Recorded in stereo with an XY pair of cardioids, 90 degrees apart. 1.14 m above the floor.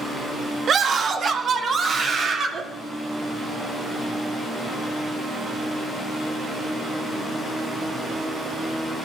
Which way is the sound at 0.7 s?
55° right.